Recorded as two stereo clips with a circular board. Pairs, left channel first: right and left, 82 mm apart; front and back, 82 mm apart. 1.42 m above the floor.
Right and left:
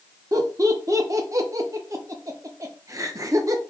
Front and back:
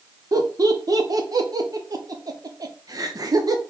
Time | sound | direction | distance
0.3 | laughter | 140° left | 0.8 m